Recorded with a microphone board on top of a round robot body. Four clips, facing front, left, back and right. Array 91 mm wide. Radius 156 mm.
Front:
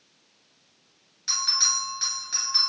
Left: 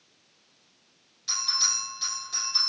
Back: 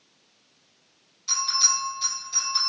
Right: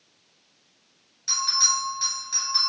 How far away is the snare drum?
No snare drum in this recording.